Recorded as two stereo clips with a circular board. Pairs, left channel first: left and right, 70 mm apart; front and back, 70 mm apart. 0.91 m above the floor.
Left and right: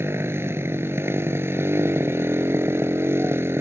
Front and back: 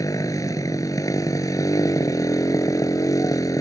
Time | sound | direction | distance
0.0 | a motorcycle | 35° right | ?